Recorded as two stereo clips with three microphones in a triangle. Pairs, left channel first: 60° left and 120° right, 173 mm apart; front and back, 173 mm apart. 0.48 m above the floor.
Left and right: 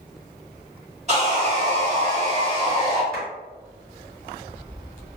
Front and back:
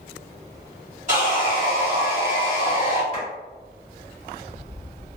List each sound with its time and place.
1.1 s sawing: 155° right, 1.8 m
3.1 s a clap: 145° left, 1.8 m